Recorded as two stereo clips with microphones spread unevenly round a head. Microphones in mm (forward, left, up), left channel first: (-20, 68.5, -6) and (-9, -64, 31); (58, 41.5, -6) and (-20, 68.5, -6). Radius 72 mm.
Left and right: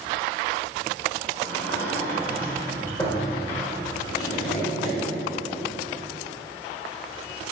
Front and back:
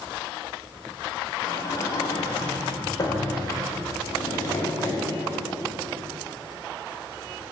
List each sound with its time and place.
1.4 s a sliding door: 30° left, 1.4 m
4.1 s tapping: 35° left, 1.7 m